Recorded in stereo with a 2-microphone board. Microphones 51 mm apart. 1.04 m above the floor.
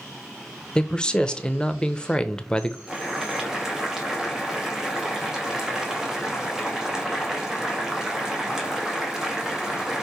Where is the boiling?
10° right (ahead or behind), 1.9 m.